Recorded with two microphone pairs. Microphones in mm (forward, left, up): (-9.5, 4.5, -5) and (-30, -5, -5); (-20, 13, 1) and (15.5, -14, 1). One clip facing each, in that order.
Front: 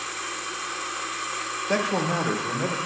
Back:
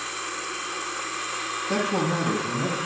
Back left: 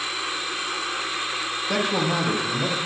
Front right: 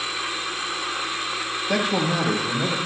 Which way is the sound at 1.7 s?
45° left.